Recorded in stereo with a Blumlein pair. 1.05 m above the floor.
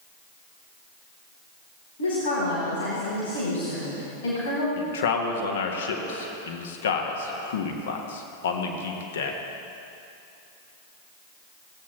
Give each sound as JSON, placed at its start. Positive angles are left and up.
{"t": 2.0, "sound": "a woman speaking", "azimuth_deg": 65, "distance_m": 3.0}
{"t": 4.8, "sound": "a man speaking", "azimuth_deg": 60, "distance_m": 1.2}